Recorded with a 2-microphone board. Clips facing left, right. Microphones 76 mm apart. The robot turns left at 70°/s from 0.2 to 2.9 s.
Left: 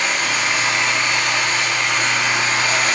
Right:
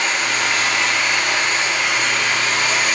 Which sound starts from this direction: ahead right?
Running water, at 0.0 s.